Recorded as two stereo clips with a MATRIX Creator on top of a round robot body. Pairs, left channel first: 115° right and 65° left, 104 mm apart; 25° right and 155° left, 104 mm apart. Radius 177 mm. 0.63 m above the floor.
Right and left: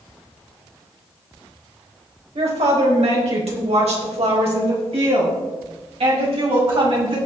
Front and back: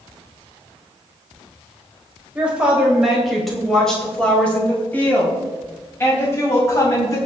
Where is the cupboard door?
No cupboard door in this recording.